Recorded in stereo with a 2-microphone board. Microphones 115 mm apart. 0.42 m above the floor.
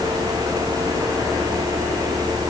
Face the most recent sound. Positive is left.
No sound to turn to.